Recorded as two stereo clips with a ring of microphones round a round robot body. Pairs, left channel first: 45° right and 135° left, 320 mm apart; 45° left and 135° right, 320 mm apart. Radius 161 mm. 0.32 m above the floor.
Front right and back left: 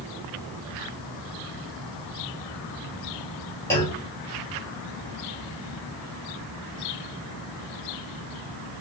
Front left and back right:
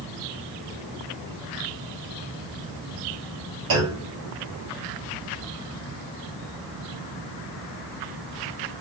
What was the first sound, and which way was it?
A clunk, 125° right.